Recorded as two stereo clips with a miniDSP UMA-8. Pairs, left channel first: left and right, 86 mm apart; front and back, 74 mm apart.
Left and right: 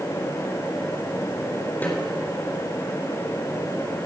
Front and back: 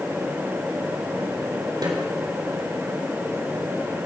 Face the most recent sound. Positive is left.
turn(degrees=160)